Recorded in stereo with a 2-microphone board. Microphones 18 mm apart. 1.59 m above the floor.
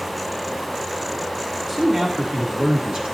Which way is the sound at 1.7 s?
35° right (ahead or behind).